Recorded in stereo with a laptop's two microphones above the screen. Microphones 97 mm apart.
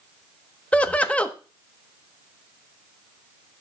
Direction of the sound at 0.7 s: 15° left (ahead or behind).